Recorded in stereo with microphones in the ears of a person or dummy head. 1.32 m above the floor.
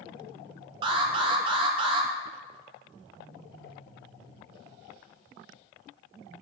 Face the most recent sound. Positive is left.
turn(degrees=-30)  # may be behind; listen again after turning